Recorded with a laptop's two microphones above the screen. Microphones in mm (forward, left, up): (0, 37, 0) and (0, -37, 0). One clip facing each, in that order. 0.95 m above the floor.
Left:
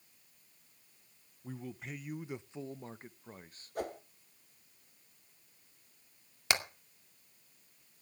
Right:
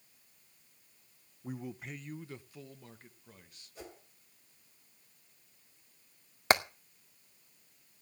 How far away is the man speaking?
About 0.6 m.